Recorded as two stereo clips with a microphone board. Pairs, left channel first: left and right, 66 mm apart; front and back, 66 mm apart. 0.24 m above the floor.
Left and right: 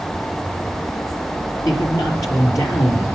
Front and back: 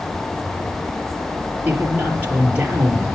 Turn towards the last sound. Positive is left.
turn(degrees=115)